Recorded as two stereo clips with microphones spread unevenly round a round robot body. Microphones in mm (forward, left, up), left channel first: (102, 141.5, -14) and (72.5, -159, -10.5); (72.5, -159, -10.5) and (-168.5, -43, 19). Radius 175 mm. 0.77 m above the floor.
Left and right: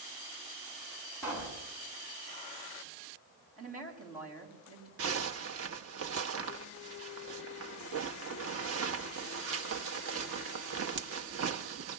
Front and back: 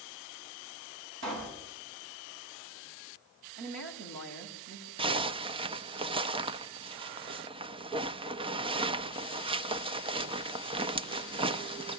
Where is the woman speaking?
175° left, 5 m.